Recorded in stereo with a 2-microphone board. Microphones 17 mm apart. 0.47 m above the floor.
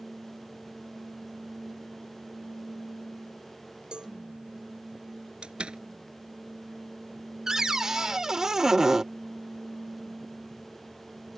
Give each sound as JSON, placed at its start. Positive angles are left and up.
{"t": 3.9, "sound": "a cowbell", "side_deg": -65}
{"t": 5.4, "sound": "a door slam", "side_deg": -75}
{"t": 7.5, "sound": "a cupboard door", "side_deg": -35}